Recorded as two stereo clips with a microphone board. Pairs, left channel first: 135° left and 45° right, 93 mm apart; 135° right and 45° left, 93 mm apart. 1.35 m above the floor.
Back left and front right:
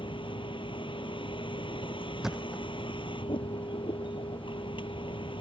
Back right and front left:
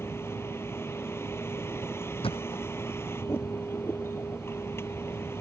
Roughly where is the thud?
Behind right.